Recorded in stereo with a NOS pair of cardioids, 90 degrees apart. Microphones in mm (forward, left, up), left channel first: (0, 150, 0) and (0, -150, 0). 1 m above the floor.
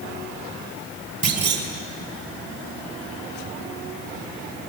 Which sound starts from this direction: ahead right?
A clunk, at 1.2 s.